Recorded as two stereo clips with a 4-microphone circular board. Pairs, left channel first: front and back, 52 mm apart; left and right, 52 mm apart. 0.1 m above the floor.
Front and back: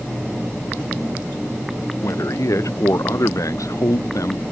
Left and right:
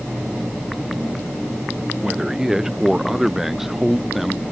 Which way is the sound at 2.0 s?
10° right.